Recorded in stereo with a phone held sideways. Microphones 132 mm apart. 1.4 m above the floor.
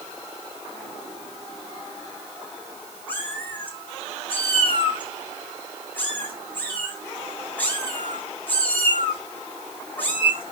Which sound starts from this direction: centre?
A cat meowing, at 3.1 s.